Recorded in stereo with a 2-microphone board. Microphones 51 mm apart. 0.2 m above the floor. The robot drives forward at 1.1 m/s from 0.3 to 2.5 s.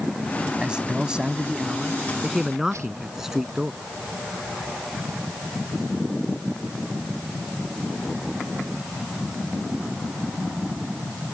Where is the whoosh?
85° right.